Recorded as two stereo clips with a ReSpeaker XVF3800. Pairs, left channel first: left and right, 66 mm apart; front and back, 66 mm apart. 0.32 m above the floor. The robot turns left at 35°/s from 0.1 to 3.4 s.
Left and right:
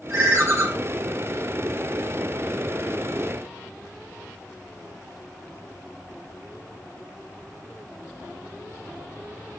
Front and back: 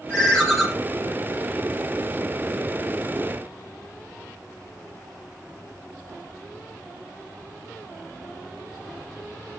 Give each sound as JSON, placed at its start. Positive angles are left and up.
{"t": 0.1, "sound": "a ringtone", "azimuth_deg": -75, "distance_m": 0.9}